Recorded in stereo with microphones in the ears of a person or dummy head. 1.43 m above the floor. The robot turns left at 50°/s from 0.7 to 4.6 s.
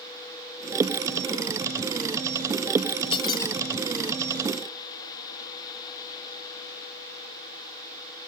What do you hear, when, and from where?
3.1 s a squeak: 35° left (ahead or behind), 0.6 m; by 3.6 s 15° left (ahead or behind), 0.6 m